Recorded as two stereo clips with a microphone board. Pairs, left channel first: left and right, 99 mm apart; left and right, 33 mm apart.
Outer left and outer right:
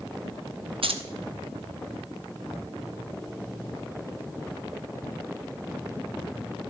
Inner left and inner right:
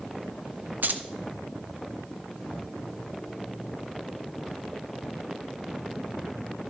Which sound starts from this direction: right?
Keys jangling, at 0.8 s.